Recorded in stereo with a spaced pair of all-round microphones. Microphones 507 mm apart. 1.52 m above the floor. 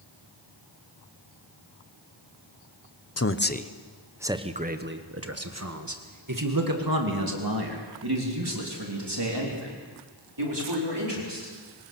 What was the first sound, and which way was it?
A man speaking, 30° left (ahead or behind).